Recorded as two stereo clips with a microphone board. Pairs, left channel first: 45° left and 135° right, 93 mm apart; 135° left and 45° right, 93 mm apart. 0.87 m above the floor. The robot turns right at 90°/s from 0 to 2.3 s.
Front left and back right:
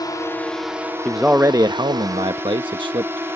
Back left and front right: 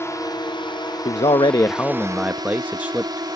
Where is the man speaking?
130° left; by 3.4 s 120° right.